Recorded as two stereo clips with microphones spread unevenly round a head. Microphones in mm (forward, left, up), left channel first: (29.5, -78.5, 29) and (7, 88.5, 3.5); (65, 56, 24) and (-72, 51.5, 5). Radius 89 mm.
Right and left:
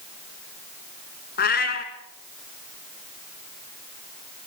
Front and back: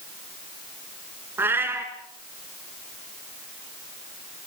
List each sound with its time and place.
1.4 s a cat meowing: 95° right, 2 m